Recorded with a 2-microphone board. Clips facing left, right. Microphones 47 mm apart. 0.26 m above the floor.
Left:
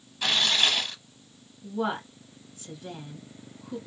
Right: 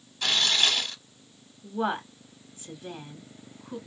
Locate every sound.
0.2 s tearing paper: 10° left (ahead or behind), 0.6 m
1.6 s a woman speaking: 20° right (ahead or behind), 1.8 m